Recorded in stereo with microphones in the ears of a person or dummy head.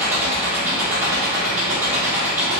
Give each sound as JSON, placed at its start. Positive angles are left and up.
{"t": 0.0, "sound": "an engine running", "side_deg": -15, "distance_m": 1.8}